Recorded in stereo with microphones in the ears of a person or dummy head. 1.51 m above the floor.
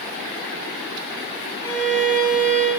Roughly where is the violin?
Centre.